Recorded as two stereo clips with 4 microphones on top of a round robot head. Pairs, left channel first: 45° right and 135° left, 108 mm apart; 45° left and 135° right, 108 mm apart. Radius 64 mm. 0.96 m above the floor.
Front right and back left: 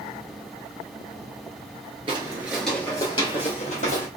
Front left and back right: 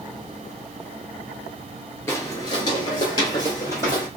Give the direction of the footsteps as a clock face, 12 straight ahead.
9 o'clock.